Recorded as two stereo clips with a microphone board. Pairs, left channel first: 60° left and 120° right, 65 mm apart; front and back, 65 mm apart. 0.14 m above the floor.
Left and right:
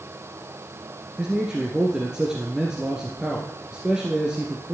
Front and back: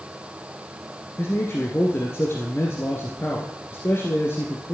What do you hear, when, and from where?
1.2 s a man speaking: 45° right, 1.9 m